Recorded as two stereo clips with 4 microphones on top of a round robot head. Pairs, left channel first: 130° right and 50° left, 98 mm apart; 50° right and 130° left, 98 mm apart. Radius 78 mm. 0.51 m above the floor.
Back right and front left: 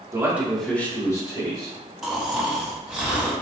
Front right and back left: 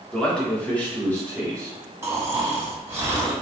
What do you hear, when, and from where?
0.1 s a man speaking: 25° left, 1.2 m; by 1.7 s 120° right, 1.6 m
2.0 s snoring: 125° left, 1.2 m